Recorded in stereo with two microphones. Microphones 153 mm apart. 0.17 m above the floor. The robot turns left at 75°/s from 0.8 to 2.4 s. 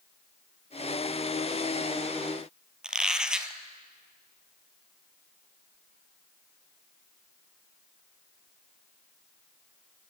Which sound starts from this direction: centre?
A squeak, at 2.8 s.